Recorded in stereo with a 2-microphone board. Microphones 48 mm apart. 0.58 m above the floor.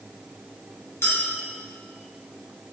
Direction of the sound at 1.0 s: 70° left (ahead or behind).